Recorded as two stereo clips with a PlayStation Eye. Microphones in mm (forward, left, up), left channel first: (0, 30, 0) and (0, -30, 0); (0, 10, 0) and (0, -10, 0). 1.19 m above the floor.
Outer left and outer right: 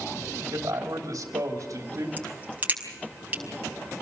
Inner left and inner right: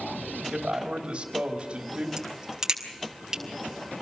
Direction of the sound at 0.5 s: 80° right.